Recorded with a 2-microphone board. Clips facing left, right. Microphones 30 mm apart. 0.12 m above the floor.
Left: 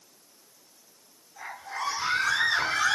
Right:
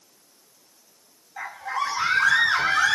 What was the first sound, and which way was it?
A scream, 75° right (ahead or behind).